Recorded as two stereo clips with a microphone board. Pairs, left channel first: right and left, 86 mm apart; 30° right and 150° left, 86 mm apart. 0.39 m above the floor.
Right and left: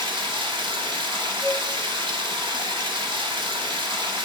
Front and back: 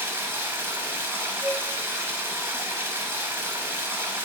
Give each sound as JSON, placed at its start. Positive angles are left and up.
{"t": 0.0, "sound": "running water", "azimuth_deg": 90, "distance_m": 0.8}
{"t": 1.4, "sound": "a flute", "azimuth_deg": -30, "distance_m": 1.0}